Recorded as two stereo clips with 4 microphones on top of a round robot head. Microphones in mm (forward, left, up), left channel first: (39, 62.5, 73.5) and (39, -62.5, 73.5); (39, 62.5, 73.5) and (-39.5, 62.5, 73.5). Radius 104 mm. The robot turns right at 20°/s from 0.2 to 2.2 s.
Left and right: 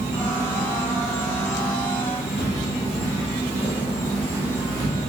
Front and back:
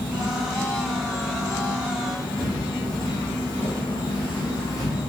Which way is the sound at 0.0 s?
20° right.